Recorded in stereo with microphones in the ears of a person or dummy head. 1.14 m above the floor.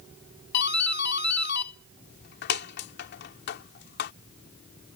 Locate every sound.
0.5 s a doorbell: 55° left (ahead or behind)